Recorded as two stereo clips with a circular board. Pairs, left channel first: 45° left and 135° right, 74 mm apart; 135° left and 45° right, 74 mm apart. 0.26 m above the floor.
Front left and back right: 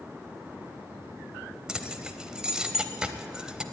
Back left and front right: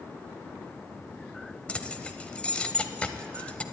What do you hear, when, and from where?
1.7 s keys jangling: 170° left, 0.6 m